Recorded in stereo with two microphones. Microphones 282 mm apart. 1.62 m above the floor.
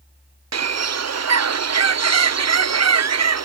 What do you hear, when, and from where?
0.5 s a bird: 65° right (ahead or behind)